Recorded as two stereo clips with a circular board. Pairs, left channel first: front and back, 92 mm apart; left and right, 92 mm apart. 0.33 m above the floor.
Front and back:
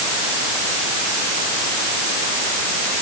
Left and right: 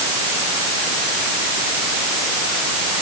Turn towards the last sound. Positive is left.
No sound to turn to.